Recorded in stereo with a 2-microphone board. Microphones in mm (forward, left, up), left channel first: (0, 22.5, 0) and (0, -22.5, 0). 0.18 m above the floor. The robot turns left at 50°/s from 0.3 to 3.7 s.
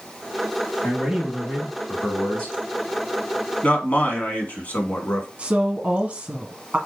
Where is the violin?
No violin in this recording.